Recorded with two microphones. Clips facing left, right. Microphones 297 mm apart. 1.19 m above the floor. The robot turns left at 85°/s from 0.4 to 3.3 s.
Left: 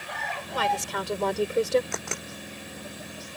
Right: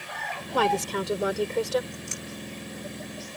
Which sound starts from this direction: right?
A woman speaking, at 0.5 s.